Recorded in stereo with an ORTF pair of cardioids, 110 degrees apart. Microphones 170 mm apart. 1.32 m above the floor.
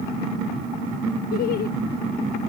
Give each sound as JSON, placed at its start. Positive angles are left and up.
{"t": 1.3, "sound": "laughter", "azimuth_deg": 60}